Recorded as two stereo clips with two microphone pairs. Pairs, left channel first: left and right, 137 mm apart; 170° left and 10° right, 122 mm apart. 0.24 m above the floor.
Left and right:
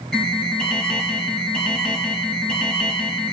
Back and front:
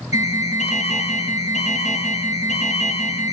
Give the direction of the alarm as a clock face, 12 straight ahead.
6 o'clock.